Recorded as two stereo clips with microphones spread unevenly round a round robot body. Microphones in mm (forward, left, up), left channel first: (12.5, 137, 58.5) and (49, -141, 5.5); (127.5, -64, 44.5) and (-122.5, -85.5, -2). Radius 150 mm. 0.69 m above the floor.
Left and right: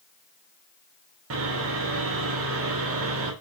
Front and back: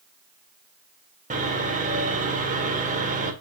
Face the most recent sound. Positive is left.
turn(degrees=-120)